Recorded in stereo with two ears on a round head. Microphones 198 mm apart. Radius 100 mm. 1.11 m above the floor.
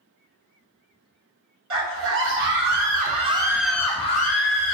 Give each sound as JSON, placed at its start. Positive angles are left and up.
{"t": 1.7, "sound": "a scream", "side_deg": -65, "distance_m": 1.4}